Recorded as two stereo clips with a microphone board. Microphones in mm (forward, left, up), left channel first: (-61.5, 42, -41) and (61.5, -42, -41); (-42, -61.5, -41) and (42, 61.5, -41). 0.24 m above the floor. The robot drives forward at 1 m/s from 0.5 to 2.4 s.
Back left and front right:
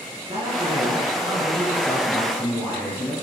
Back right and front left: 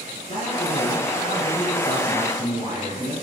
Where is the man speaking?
90° right, 1.7 m; by 3.1 s 140° right, 2.5 m.